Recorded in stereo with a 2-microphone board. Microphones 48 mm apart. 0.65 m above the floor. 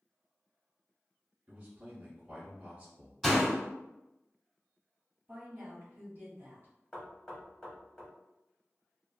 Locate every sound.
1.5 s a man speaking: 20° right (ahead or behind), 1.2 m
3.2 s a door slam: 5° left (ahead or behind), 1.5 m
5.3 s a woman speaking: 40° right (ahead or behind), 1.2 m
6.9 s knocking: 15° left (ahead or behind), 1.0 m